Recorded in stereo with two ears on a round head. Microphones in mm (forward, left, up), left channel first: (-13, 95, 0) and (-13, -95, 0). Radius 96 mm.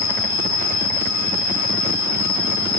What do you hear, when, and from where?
0.0 s an insect: 80° left, 7.5 m